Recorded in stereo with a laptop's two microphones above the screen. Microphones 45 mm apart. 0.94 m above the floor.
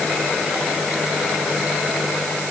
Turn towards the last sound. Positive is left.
No sound to turn to.